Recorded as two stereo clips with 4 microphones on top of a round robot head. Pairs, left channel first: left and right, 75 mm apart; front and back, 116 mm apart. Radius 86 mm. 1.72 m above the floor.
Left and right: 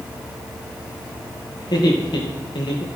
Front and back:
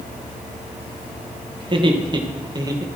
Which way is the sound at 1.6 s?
135° left.